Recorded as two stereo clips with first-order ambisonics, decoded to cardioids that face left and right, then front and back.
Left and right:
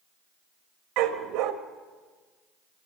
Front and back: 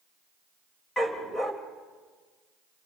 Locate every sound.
1.0 s a dog barking: 75° right, 1.7 m